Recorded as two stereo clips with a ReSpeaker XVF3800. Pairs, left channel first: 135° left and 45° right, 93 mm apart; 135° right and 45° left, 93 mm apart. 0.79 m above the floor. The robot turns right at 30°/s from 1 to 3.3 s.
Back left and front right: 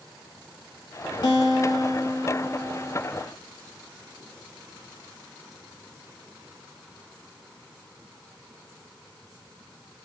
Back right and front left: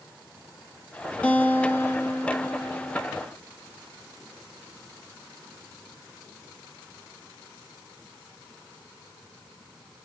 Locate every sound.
1.2 s a guitar: 150° left, 1.8 m; by 3.0 s 155° right, 1.8 m